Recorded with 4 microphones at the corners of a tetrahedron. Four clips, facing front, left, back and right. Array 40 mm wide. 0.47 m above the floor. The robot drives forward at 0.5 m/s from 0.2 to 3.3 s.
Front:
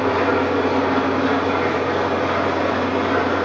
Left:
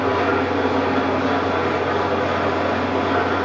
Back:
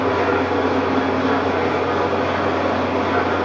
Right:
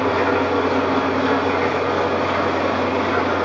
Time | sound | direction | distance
0.0 | an engine running | 75° right | 3 m